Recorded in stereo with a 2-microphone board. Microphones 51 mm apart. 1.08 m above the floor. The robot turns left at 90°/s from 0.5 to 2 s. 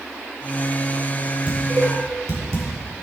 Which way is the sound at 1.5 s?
20° right (ahead or behind).